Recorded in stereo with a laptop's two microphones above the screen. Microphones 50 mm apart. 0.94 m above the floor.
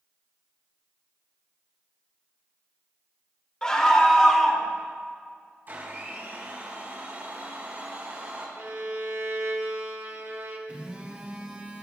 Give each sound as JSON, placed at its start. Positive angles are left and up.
{"t": 3.6, "sound": "a scream", "side_deg": 20, "distance_m": 2.5}
{"t": 5.7, "sound": "a blender", "side_deg": -45, "distance_m": 4.5}
{"t": 8.6, "sound": "a violin", "side_deg": -65, "distance_m": 1.6}
{"t": 10.7, "sound": "a phone buzzing", "side_deg": -30, "distance_m": 2.5}